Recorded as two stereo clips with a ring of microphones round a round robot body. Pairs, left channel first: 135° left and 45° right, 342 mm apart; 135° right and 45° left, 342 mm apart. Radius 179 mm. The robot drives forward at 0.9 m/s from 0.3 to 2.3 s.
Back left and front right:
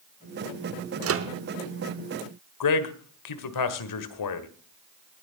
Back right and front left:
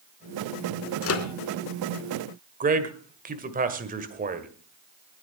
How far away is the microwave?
About 1.1 m.